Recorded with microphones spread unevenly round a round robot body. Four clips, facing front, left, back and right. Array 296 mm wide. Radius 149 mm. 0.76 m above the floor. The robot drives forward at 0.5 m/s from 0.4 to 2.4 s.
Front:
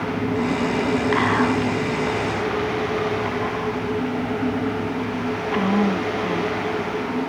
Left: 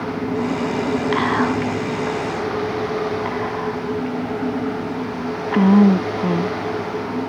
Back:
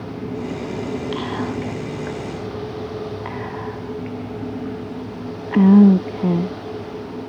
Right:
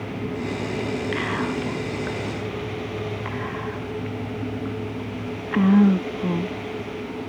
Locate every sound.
1.1 s whispering: 75° left; by 6.6 s 165° left